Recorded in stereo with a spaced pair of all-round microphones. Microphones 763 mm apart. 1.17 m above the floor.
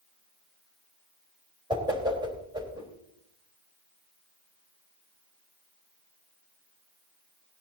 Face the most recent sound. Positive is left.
turn(degrees=-5)  # may be behind; listen again after turning